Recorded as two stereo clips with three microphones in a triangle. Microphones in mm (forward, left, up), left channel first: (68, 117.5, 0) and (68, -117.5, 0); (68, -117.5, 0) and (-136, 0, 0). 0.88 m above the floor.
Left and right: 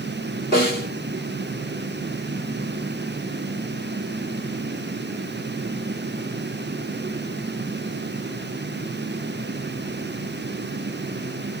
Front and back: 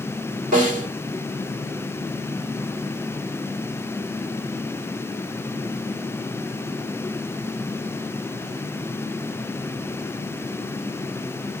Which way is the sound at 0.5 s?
155° right.